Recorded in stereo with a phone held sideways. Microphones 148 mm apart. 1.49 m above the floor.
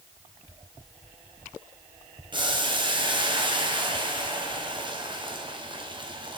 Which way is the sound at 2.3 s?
35° right (ahead or behind).